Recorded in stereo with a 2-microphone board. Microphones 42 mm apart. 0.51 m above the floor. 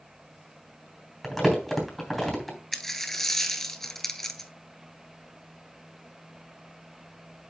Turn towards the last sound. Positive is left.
turn(degrees=10)  # may be behind; listen again after turning